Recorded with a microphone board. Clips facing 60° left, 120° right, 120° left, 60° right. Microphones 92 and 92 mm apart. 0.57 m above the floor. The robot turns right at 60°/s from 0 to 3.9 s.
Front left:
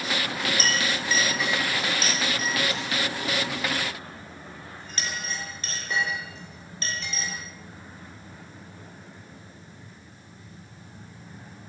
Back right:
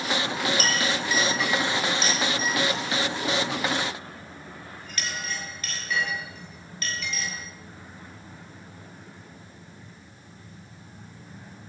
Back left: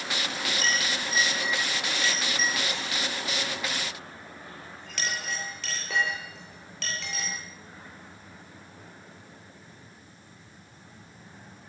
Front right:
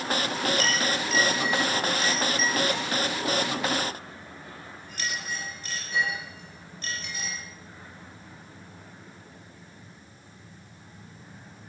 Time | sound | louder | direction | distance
0.6 | a clink | back right 1 dB, front right 3 dB | 75° right | 8.5 m